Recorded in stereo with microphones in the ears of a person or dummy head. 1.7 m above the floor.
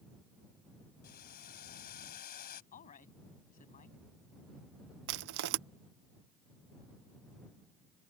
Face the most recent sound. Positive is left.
turn(degrees=-65)  # may be behind; listen again after turning